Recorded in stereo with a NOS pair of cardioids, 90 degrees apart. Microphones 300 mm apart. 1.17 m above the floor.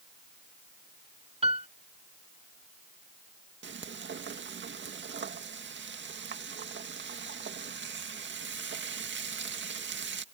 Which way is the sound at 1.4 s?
20° right.